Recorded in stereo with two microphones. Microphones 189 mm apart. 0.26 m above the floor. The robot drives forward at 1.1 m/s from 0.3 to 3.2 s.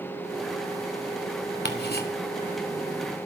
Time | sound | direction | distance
1.6 | ticking | 65° left (ahead or behind) | 1.6 m